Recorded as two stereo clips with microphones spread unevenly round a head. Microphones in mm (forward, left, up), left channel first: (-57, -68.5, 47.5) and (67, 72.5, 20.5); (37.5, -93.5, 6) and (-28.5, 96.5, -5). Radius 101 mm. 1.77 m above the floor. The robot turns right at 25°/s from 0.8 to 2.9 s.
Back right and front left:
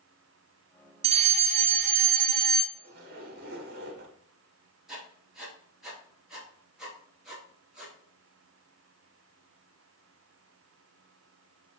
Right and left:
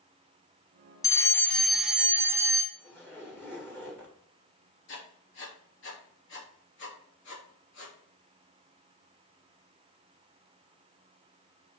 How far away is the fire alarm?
About 0.9 m.